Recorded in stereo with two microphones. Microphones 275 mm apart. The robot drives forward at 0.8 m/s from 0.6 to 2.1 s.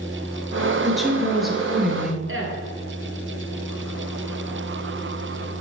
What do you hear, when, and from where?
0.8 s a woman speaking: centre (ahead or behind), 1.5 m
2.3 s a woman speaking: 50° right (ahead or behind), 1.9 m